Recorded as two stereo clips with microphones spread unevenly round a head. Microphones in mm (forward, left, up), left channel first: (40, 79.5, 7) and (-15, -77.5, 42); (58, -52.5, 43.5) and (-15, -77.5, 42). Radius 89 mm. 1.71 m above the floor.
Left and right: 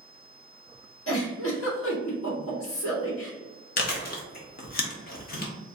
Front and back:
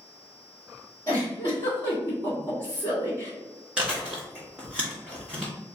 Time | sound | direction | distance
1.1 | a giggle | 85° left | 1.9 m
3.8 | chewing | 115° left | 1.0 m